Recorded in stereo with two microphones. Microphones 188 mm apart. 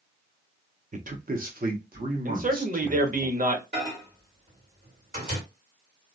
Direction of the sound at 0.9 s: 45° right (ahead or behind).